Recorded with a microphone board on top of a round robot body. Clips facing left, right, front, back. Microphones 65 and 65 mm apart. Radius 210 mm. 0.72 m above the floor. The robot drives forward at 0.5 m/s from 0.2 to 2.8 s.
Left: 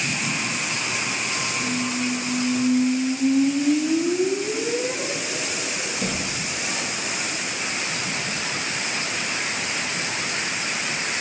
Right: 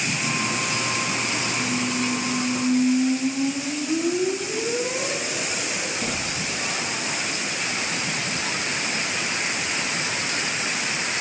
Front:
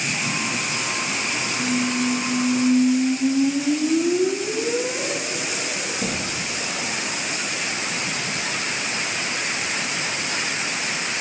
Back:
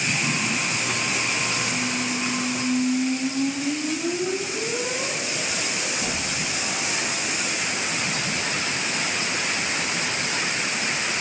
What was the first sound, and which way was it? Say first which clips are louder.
A squeak: even, front 4 dB; 30° left.